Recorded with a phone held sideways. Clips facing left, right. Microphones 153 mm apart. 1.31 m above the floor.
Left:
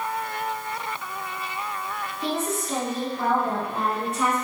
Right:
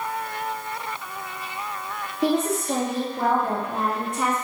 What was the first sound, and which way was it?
A woman speaking, 70° right (ahead or behind).